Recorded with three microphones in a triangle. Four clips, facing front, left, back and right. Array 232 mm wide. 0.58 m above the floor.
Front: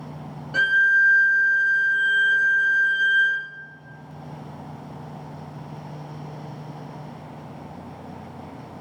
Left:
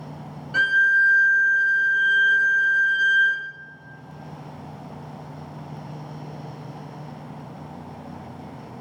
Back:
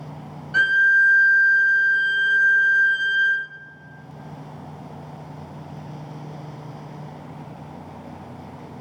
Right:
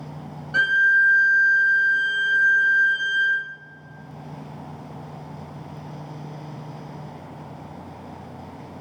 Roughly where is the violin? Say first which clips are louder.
Even, back 2 dB; ahead.